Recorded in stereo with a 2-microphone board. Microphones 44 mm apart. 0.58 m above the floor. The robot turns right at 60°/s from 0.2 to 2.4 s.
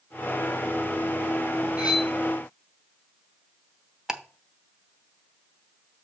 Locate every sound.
1.8 s cutlery clinking: 25° right (ahead or behind), 2.5 m; by 2.1 s centre (ahead or behind), 2.5 m
4.1 s ticking: 10° right (ahead or behind), 0.8 m